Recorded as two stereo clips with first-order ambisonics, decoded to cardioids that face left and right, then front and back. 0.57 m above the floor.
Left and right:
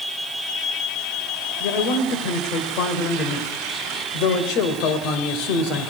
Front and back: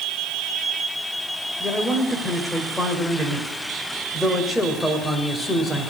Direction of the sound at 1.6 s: 90° left.